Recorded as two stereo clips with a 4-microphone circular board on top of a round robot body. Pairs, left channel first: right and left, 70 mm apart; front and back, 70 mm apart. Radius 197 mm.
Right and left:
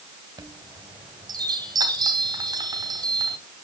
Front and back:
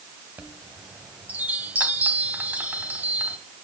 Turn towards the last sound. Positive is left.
turn(degrees=110)